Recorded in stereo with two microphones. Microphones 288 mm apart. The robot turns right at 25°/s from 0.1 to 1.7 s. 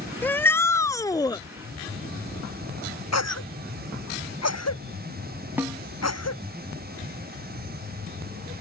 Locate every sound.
0.2 s a shout: 5° left (ahead or behind); by 1.4 s 15° left (ahead or behind)
3.1 s a cough: 65° left (ahead or behind)
5.6 s a snare drum: 5° right (ahead or behind)